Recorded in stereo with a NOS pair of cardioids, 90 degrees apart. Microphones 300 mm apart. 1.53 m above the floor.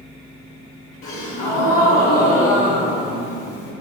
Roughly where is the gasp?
Ahead left.